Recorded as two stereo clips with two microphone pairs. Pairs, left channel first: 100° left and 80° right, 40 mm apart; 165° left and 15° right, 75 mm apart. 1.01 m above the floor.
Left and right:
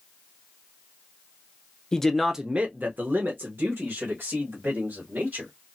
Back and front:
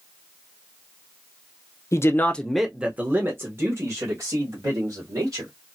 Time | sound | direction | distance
1.9 | a man speaking | 165° left | 0.6 m